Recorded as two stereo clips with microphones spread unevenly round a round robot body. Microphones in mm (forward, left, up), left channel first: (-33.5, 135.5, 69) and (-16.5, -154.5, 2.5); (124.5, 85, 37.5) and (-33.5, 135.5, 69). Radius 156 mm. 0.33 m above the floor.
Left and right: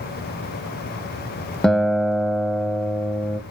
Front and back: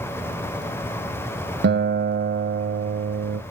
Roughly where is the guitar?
Behind.